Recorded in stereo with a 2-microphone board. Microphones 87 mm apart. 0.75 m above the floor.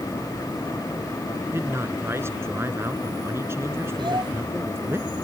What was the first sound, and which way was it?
A man speaking, 30° right (ahead or behind).